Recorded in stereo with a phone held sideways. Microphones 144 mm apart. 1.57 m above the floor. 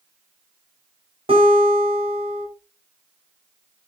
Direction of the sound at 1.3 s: 45° right (ahead or behind).